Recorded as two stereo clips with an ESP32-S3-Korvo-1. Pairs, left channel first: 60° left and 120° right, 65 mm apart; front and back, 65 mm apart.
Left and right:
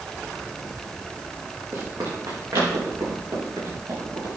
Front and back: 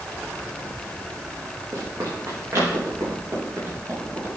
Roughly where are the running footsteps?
Behind right.